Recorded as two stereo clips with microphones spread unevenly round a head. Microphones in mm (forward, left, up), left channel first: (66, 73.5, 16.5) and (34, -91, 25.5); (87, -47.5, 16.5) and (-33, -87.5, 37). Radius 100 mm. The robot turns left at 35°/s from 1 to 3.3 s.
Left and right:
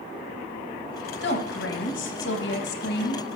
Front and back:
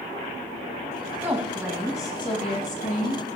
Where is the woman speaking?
120° left, 1.2 m; by 3.2 s 45° left, 1.2 m.